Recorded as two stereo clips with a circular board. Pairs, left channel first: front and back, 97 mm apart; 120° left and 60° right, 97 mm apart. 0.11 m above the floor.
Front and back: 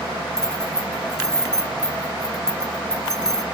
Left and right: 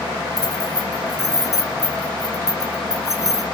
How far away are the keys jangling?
About 1.6 m.